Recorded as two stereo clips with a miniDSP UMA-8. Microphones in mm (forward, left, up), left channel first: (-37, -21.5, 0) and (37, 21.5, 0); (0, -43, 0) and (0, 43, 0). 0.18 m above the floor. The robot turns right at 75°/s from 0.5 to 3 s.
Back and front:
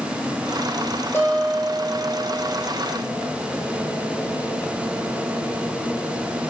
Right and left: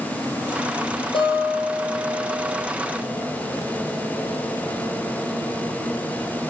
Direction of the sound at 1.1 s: 85° right.